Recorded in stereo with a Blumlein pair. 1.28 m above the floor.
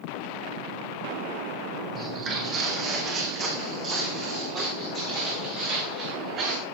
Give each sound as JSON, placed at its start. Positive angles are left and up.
{"t": 1.9, "sound": "footsteps", "azimuth_deg": -25, "distance_m": 4.0}